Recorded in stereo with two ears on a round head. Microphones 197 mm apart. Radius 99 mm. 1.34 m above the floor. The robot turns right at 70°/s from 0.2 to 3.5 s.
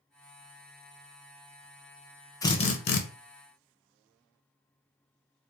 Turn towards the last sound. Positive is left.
turn(degrees=90)